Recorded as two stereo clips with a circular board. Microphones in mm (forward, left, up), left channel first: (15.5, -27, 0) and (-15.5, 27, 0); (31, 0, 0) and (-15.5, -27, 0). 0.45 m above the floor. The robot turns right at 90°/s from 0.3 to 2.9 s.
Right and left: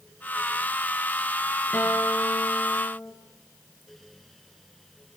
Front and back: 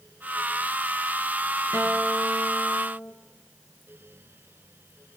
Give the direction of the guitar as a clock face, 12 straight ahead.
4 o'clock.